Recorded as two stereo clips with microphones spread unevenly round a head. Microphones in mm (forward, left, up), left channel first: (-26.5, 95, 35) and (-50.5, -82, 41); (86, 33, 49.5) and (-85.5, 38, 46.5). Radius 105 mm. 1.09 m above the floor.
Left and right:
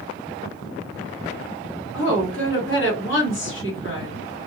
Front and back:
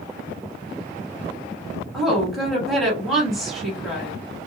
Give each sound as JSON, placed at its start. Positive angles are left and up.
{"t": 1.9, "sound": "a woman speaking", "azimuth_deg": 90, "distance_m": 1.6}